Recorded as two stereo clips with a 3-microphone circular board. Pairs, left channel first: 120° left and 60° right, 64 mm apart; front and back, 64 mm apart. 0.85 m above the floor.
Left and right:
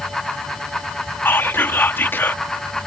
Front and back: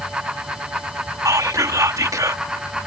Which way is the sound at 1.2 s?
170° left.